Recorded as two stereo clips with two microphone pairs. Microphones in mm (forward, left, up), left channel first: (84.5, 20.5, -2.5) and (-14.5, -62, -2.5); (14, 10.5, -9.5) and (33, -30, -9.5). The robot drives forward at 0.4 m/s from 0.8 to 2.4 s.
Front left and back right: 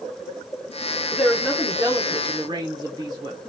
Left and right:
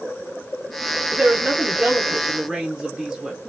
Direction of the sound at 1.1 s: 55° right.